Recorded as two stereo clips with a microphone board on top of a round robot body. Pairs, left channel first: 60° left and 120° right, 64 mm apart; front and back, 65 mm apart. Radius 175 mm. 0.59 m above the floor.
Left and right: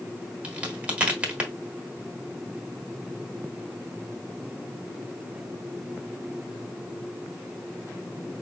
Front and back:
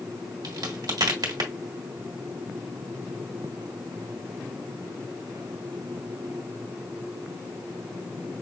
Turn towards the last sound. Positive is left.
turn(degrees=165)